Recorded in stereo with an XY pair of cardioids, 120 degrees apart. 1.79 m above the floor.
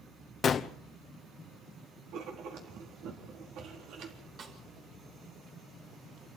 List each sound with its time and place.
0.4 s a gunshot: 45° left, 1.0 m
2.1 s writing: 70° right, 4 m
4.4 s a snare drum: 50° right, 6 m